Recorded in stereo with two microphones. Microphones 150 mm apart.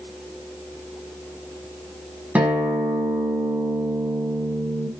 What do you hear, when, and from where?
2.4 s a guitar: 10° right (ahead or behind), 3.5 m